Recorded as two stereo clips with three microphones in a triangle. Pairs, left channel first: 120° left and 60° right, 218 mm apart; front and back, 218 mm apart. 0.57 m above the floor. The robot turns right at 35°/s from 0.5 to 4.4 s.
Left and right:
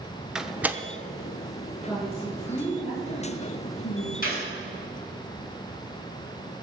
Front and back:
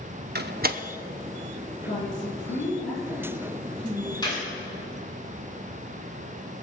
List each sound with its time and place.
0.3 s a door slam: 145° right, 0.8 m; by 0.8 s 135° right, 0.8 m
1.9 s a woman speaking: 20° left, 7 m; by 4.1 s 100° left, 7 m
4.2 s a gunshot: 70° left, 6 m; by 4.4 s 75° left, 6 m